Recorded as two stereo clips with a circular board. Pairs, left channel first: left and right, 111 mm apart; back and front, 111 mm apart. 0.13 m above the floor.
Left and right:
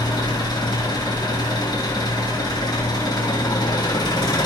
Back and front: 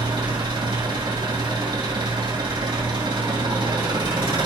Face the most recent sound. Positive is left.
turn(degrees=45)